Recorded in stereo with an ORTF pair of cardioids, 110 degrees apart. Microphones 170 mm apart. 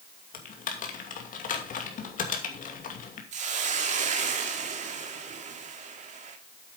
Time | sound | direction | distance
0.3 | typing on a keyboard | 50° left | 2.5 m
3.3 | a hiss | 45° right | 2 m